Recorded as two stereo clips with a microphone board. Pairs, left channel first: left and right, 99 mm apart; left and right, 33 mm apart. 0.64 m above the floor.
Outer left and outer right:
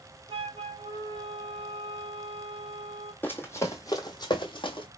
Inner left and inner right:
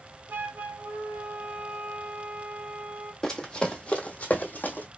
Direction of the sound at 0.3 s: 70° right (ahead or behind).